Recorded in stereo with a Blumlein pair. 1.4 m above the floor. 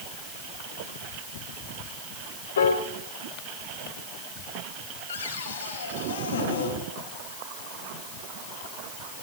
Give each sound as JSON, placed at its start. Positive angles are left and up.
{"t": 2.6, "sound": "a piano", "azimuth_deg": 65, "distance_m": 3.5}
{"t": 5.1, "sound": "a cupboard door", "azimuth_deg": 65, "distance_m": 6.5}